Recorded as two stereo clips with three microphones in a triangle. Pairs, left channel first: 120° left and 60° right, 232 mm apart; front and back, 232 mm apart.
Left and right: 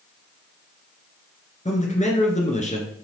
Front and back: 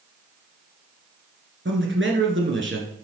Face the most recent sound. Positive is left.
turn(degrees=175)